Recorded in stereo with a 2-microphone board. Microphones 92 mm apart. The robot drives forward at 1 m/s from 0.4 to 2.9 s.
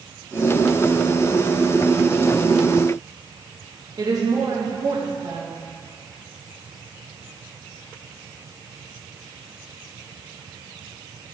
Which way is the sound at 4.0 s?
45° right (ahead or behind).